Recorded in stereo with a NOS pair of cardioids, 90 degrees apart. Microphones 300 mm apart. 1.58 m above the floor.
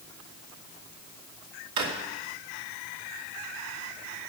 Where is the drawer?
70° right, 2.5 m.